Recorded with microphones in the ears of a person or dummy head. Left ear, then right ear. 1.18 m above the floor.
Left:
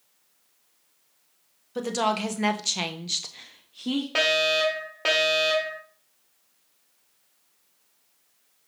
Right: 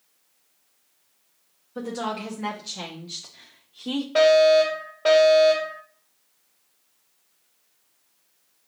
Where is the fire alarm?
35° left (ahead or behind), 2 m.